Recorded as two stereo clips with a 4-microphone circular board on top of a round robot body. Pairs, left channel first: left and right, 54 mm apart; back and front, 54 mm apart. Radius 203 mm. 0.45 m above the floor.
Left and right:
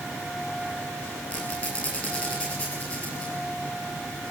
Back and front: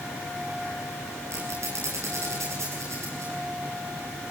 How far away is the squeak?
About 9 m.